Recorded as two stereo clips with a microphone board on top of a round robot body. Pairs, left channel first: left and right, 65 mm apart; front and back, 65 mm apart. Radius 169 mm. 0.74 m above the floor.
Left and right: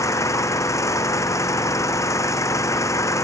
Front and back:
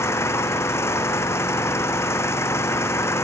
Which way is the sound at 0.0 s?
50° left.